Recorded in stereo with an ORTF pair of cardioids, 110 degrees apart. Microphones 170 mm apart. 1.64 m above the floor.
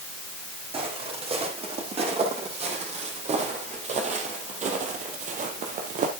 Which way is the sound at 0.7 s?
35° right.